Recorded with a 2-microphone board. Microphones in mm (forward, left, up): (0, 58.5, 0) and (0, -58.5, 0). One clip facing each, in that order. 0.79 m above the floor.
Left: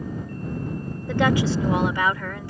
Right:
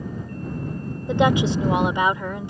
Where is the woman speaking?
20° right (ahead or behind).